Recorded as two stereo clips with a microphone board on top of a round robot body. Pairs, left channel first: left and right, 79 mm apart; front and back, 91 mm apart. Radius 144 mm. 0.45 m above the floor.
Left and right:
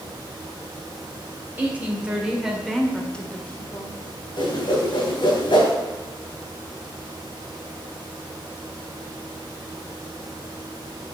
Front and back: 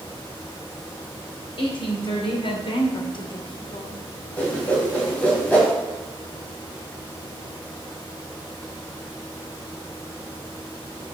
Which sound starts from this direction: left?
A whoosh, at 4.4 s.